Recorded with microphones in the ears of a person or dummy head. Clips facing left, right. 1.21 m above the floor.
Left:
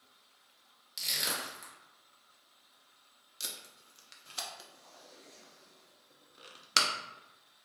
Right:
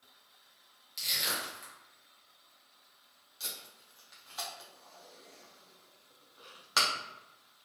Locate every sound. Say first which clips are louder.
1.0 s crushing: even; 15° left (ahead or behind), 0.9 m
3.4 s tape being pulled: even; 30° left (ahead or behind), 0.6 m